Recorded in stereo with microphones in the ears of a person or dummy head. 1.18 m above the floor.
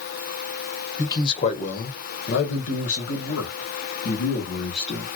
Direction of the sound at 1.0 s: 20° left (ahead or behind).